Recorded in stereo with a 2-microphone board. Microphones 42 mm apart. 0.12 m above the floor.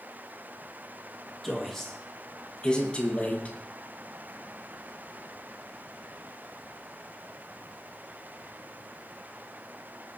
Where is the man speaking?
5° left (ahead or behind), 3.5 m; by 3.6 s 40° left (ahead or behind), 3 m.